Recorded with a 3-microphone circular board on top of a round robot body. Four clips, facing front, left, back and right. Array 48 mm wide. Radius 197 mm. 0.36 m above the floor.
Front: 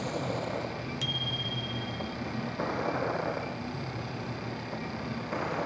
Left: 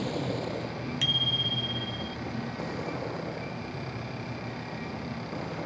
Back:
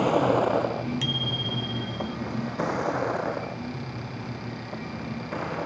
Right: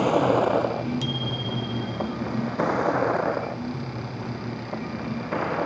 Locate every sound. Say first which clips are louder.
0.0 s a vehicle: right 12 dB, back 12 dB; 125° right; by 5.7 s 85° right
1.0 s a bicycle bell: even, back 4 dB; 120° left